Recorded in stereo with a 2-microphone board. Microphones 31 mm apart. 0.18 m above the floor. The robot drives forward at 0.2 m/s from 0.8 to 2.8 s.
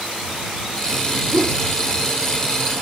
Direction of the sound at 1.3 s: 40° right (ahead or behind).